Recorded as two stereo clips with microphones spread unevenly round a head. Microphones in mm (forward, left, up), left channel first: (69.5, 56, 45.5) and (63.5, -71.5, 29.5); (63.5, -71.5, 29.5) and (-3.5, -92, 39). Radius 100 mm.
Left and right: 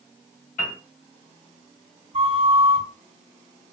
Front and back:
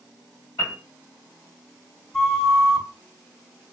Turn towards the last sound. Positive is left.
turn(degrees=-75)